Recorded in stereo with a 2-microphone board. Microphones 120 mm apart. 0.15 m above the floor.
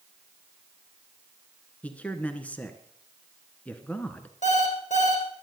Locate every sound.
1.8 s a man speaking: 10° left (ahead or behind), 1.4 m
4.4 s an alarm clock: 80° left, 3 m